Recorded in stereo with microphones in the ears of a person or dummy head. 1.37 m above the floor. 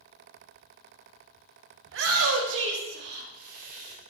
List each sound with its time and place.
1.9 s a shout: 70° right (ahead or behind), 0.8 m; by 4.0 s 35° right (ahead or behind), 1.3 m